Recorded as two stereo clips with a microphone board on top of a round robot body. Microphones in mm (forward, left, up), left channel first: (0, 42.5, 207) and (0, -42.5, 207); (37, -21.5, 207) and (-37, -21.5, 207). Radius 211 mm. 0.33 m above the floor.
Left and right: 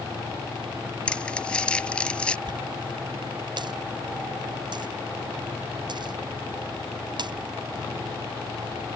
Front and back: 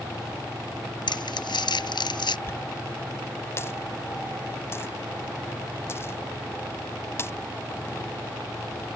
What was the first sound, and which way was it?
Crumpling, 10° left.